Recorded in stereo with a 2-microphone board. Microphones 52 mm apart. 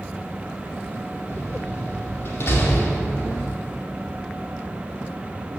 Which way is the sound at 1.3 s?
55° left (ahead or behind).